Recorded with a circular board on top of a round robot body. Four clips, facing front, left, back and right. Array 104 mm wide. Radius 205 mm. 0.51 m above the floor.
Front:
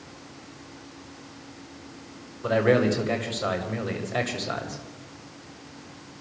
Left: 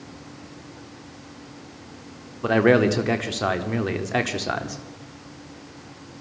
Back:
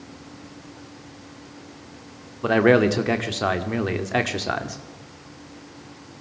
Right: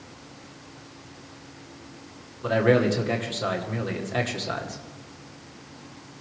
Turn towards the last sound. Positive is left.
turn(degrees=140)